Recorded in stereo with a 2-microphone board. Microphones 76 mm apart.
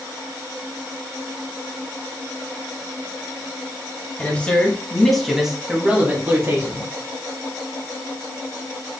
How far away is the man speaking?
About 1.5 m.